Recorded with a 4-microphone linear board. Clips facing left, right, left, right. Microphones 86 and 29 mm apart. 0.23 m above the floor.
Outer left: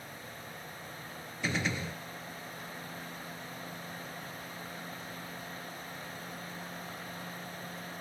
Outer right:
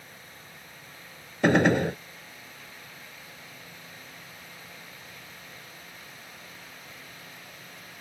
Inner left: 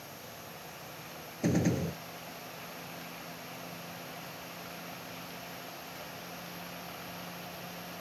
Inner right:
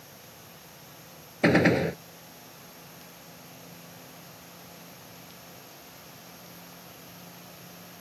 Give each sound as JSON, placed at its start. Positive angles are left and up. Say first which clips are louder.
{"t": 1.4, "sound": "a gunshot", "louder": "outer right 14 dB, inner right 9 dB", "side_deg": -65}